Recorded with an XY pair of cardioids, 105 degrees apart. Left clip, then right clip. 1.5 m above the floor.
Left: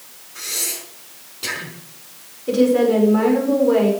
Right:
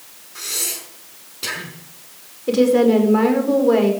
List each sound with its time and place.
0.3 s breathing: 20° right, 5 m
2.5 s a woman speaking: 30° right, 5 m